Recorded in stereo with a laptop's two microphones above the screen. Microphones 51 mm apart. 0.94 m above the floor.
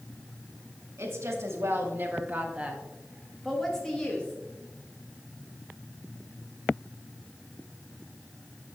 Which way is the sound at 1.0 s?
60° right (ahead or behind).